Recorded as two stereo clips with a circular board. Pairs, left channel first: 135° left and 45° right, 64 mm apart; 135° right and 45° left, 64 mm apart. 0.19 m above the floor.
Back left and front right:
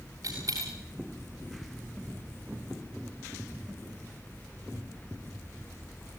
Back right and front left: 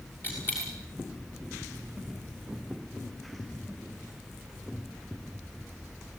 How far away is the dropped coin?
About 7 m.